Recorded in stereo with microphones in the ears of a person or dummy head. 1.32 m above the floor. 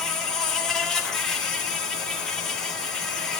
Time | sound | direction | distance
0.0 | an insect | 5° left (ahead or behind) | 1.9 m